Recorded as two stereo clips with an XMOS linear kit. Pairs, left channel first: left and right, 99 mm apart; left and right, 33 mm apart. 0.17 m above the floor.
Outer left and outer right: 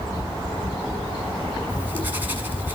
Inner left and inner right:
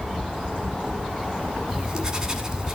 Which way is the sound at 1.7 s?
20° right (ahead or behind).